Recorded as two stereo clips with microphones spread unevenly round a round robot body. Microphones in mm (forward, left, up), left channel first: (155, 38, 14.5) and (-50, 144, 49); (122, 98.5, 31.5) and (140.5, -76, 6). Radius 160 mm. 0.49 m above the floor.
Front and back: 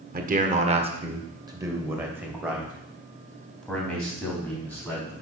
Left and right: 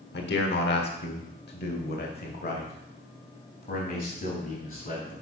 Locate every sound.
0.1 s a man speaking: 100° left, 1.6 m; by 5.1 s 55° left, 4.5 m